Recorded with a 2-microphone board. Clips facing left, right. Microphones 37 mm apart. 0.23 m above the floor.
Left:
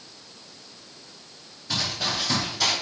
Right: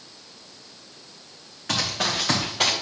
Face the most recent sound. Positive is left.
turn(degrees=-45)  # may be behind; listen again after turning